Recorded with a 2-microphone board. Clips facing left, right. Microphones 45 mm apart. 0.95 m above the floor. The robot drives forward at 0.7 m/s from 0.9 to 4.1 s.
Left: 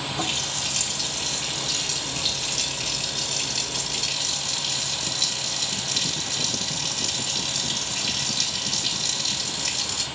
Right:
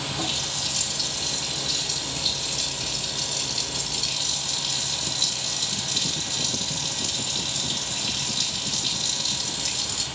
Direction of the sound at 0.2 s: 50° left (ahead or behind).